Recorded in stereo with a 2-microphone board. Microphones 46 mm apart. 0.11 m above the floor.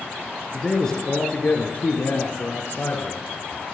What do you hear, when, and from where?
0.5 s a man speaking: centre (ahead or behind), 1.4 m; by 3.3 s 55° left (ahead or behind), 2.5 m